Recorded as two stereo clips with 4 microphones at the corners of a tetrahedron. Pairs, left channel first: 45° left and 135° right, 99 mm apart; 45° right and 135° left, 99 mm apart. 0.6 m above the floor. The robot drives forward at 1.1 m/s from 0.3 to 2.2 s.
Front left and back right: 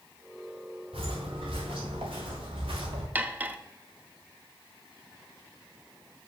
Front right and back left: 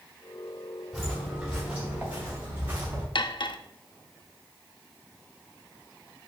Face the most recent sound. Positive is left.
turn(degrees=-65)